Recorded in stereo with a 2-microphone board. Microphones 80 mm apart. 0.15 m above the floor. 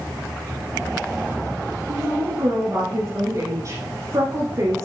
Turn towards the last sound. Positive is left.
turn(degrees=-45)  # may be behind; listen again after turning